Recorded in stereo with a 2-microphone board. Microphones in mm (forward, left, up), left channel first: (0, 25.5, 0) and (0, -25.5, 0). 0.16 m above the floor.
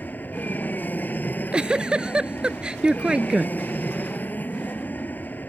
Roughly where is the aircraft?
Left.